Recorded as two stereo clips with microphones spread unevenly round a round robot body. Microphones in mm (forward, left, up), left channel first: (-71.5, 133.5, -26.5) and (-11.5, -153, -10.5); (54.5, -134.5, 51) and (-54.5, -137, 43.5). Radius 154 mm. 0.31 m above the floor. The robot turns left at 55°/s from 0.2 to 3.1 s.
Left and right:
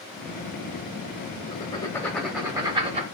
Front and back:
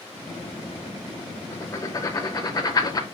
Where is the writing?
55° left, 0.8 m; by 3.0 s 30° right, 0.8 m.